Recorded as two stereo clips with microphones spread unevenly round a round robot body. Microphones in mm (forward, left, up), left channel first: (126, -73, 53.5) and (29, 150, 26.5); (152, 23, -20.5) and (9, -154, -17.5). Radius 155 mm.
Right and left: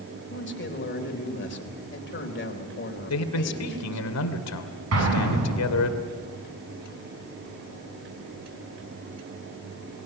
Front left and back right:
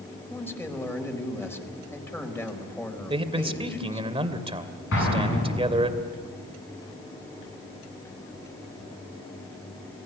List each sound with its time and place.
0.3 s a man speaking: 30° right, 4 m
3.1 s a man speaking: 65° right, 2.5 m
4.9 s an explosion: 100° left, 9 m